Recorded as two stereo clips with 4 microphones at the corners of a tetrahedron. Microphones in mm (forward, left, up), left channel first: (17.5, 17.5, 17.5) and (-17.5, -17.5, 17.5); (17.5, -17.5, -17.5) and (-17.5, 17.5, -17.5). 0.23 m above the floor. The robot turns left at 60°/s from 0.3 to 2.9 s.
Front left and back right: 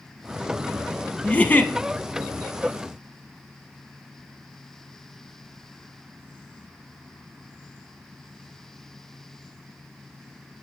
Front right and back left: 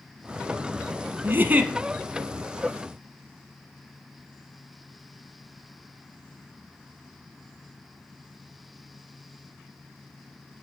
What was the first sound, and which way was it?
A giggle, 110° left.